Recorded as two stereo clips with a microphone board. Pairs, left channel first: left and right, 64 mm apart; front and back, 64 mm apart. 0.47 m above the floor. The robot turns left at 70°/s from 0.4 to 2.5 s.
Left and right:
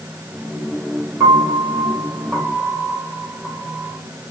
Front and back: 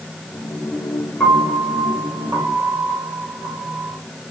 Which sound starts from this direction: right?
A piano, at 1.2 s.